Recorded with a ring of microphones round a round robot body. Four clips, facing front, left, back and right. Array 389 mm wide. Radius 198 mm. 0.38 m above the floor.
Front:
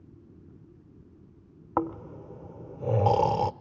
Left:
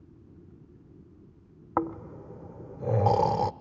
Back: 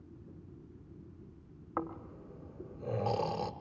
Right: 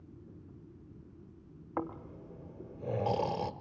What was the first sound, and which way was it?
Snoring, 45° left.